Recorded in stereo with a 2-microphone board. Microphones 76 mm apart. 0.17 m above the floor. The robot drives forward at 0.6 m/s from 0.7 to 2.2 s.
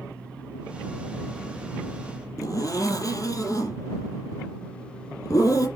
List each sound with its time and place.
2.4 s a zipper: 50° left (ahead or behind), 3 m